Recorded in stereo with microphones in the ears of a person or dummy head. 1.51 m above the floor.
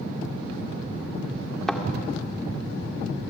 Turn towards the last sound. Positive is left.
turn(degrees=5)  # may be behind; listen again after turning